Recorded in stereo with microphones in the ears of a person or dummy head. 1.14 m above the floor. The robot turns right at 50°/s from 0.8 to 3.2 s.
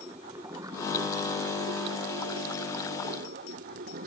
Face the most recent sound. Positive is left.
turn(degrees=-45)